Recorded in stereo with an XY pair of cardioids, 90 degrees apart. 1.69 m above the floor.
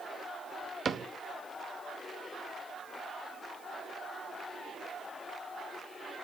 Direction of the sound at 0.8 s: 40° right.